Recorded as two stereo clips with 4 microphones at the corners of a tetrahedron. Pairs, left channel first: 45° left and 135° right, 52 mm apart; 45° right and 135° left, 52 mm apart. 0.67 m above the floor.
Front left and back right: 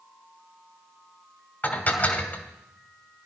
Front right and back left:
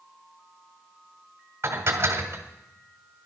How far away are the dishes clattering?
About 1.5 m.